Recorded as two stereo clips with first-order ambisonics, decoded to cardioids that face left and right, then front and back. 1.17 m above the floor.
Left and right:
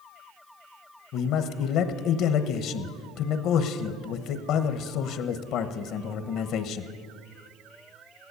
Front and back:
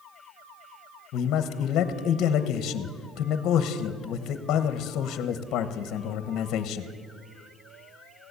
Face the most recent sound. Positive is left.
turn(degrees=50)